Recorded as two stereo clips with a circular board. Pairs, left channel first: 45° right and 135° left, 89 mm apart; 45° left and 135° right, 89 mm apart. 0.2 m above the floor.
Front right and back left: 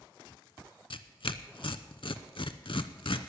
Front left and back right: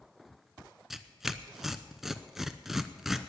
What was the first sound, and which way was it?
Tearing paper, 50° right.